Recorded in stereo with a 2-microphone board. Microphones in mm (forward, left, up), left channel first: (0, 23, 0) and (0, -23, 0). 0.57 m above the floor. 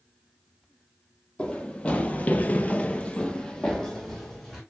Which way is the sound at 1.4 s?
20° left (ahead or behind).